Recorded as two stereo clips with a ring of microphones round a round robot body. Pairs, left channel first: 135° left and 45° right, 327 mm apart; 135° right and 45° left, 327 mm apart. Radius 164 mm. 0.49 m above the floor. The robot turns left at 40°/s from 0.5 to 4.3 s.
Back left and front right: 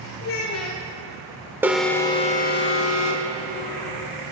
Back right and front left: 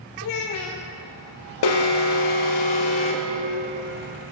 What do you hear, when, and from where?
0.2 s a child speaking: 175° right, 0.6 m; by 0.8 s 170° left, 0.6 m
1.6 s an alarm: 130° right, 0.7 m; by 4.3 s 125° left, 0.7 m